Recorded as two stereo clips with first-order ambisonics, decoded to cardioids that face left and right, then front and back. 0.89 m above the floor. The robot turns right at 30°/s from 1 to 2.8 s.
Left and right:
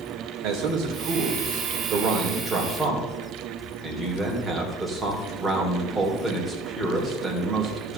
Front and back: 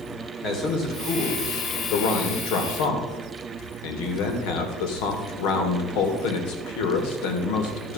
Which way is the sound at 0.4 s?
60° right.